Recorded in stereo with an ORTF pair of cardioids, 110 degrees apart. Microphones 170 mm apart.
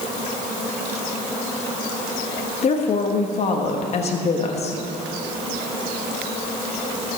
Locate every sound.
2.6 s a woman speaking: 40° left, 1.4 m